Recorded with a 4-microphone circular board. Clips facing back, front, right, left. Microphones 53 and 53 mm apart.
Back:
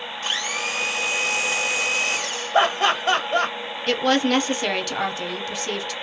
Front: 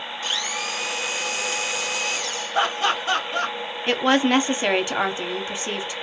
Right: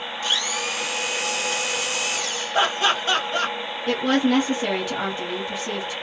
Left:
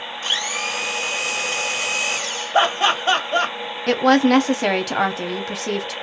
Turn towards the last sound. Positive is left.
turn(degrees=70)